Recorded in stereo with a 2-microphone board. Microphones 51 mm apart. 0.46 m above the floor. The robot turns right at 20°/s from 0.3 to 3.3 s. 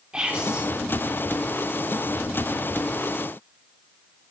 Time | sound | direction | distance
0.1 | whispering | 20° right (ahead or behind) | 1.0 m